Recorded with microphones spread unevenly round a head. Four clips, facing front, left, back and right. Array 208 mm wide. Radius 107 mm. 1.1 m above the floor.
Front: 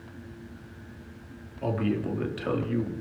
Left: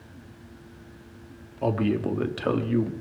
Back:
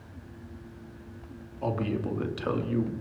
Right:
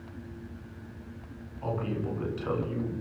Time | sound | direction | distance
1.6 | a man speaking | 85° left | 2.5 m